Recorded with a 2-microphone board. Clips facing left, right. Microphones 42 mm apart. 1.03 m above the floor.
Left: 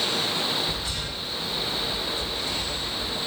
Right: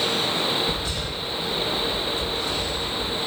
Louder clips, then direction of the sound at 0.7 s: Right 3 dB; 55° right (ahead or behind).